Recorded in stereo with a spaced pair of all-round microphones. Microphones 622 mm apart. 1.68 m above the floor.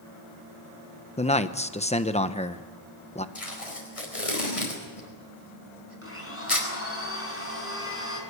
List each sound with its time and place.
1.2 s a man speaking: 10° left (ahead or behind), 1.0 m
3.4 s tape being pulled: 55° left (ahead or behind), 4.5 m
6.0 s a blender: 20° left (ahead or behind), 5 m